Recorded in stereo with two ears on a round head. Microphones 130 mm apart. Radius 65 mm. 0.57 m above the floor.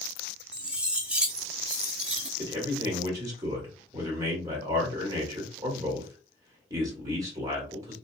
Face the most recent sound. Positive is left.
turn(degrees=-25)  # may be behind; listen again after turning